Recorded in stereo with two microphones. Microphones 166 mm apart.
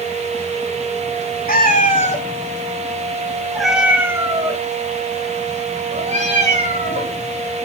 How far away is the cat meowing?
About 1.3 m.